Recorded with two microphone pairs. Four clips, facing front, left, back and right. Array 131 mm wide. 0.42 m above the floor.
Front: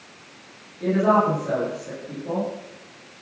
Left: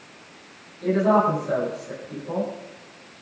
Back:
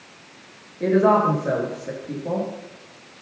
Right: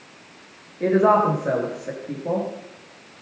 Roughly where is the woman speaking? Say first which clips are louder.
Right 2 dB, back 2 dB; behind right.